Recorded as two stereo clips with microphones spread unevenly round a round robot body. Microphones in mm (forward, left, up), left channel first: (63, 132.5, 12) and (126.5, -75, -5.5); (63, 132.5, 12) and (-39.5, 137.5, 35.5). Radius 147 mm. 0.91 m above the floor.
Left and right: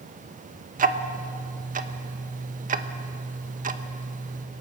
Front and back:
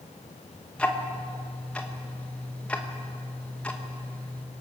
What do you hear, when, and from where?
0.8 s ticking: 60° right, 1.0 m